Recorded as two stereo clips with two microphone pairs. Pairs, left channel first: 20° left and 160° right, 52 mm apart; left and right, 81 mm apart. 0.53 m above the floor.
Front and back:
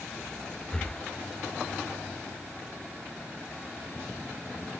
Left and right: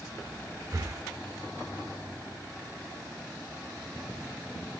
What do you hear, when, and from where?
0.7 s breathing: 55° right, 0.6 m